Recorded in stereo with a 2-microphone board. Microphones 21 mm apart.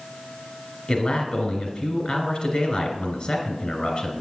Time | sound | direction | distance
0.9 | a man speaking | 55° left (ahead or behind) | 2.5 m